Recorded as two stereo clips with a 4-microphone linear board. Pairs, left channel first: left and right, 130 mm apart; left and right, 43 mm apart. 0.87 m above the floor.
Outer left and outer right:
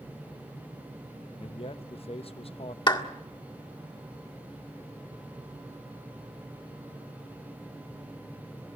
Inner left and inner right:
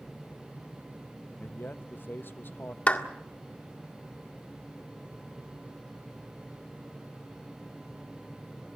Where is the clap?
35° left (ahead or behind), 1.7 m.